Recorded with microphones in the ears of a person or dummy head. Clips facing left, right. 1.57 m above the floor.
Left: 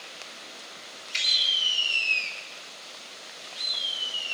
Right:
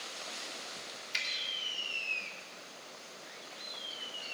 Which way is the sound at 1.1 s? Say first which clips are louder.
Left 3 dB; 10° right (ahead or behind).